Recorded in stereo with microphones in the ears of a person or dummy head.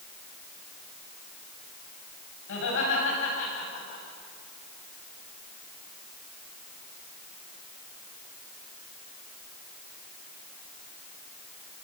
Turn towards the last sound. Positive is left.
turn(degrees=65)  # may be behind; listen again after turning